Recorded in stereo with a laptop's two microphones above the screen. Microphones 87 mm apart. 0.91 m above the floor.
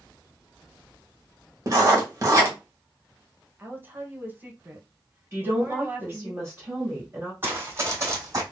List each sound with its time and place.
1.7 s writing: 35° right (ahead or behind), 1.2 m
3.6 s a woman speaking: 20° right (ahead or behind), 0.7 m
5.3 s a woman speaking: 30° right (ahead or behind), 1.9 m
7.4 s running footsteps: 25° right (ahead or behind), 2.0 m; by 8.4 s 40° right (ahead or behind), 2 m